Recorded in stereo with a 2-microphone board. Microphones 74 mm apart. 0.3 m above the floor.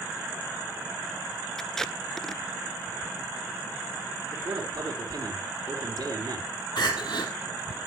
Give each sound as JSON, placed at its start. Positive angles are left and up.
{"t": 1.6, "sound": "tape being pulled", "side_deg": 5, "distance_m": 0.5}
{"t": 4.3, "sound": "a man speaking", "side_deg": -60, "distance_m": 5.5}
{"t": 6.8, "sound": "crying", "side_deg": 75, "distance_m": 3.0}